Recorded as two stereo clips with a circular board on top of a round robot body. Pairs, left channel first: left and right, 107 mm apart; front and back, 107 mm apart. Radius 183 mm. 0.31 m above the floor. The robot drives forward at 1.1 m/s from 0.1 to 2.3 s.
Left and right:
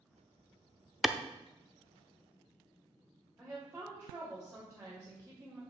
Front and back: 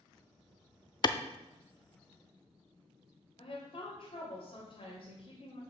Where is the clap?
Straight ahead, 0.8 m; by 1.2 s 5° right, 0.7 m.